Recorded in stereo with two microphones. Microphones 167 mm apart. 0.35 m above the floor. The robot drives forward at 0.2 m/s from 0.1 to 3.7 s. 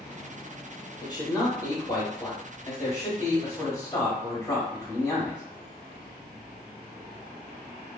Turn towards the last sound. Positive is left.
turn(degrees=20)  # may be behind; listen again after turning